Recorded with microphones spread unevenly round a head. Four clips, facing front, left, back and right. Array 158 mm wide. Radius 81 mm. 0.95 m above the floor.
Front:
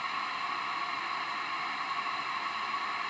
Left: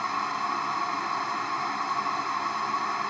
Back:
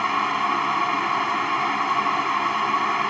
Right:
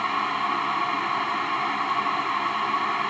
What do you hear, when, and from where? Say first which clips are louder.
0.0 s a fan: right 3 dB, back 13 dB; 160° right